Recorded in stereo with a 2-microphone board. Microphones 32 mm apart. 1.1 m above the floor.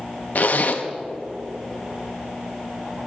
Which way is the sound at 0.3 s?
55° left (ahead or behind).